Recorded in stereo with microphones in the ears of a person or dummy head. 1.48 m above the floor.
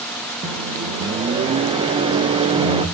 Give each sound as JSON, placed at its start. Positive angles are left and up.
{"t": 0.4, "sound": "a microwave", "side_deg": -30, "distance_m": 0.9}